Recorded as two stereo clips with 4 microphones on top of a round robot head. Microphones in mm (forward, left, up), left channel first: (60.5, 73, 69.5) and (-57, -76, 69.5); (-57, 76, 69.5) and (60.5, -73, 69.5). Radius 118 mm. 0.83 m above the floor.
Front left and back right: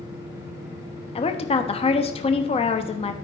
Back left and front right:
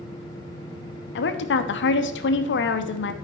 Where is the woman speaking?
110° left, 1.0 m.